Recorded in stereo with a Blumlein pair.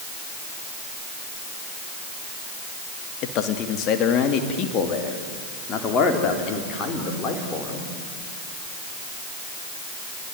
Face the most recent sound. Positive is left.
turn(degrees=25)